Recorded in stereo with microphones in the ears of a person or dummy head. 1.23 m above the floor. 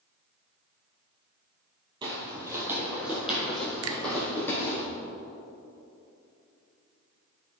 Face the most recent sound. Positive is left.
turn(degrees=-65)  # may be behind; listen again after turning